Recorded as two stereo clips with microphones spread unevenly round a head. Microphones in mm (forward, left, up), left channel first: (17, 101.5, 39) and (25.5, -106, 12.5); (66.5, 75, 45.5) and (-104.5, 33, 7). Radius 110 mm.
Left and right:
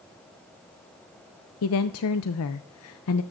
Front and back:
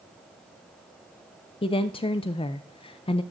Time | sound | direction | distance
1.6 | a woman speaking | 75° left | 0.6 m